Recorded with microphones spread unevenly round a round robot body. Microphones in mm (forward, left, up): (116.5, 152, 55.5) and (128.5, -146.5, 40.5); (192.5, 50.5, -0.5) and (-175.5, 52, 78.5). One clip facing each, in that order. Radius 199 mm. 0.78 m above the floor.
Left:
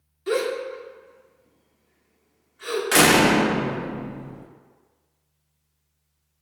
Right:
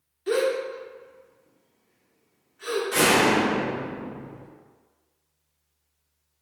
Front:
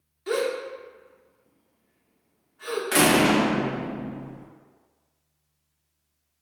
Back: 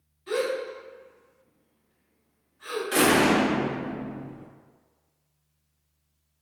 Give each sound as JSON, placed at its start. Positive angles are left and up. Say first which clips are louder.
{"t": 0.3, "sound": "a gasp", "louder": "right 1 dB, front 1 dB", "azimuth_deg": 10, "distance_m": 1.2}
{"t": 2.9, "sound": "a door slam", "louder": "left 4 dB, front 1 dB", "azimuth_deg": 75, "distance_m": 0.6}